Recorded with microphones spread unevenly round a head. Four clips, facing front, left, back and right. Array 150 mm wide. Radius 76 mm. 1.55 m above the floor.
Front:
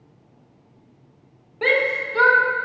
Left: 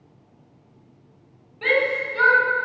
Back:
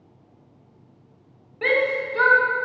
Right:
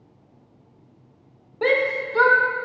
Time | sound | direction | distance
1.6 | a shout | 65° right | 1.9 m